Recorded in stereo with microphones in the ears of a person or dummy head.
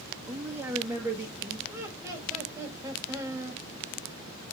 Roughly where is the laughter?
Centre.